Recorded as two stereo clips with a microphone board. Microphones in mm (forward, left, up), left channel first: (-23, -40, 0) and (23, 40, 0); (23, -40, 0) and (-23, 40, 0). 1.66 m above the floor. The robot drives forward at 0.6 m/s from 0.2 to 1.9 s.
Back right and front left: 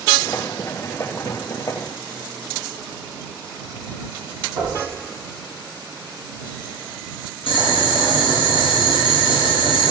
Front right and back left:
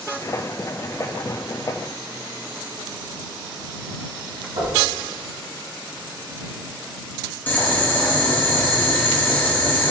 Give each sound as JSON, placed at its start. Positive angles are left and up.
{"t": 4.6, "sound": "knocking", "azimuth_deg": 125, "distance_m": 1.6}
{"t": 7.5, "sound": "boiling", "azimuth_deg": -130, "distance_m": 1.0}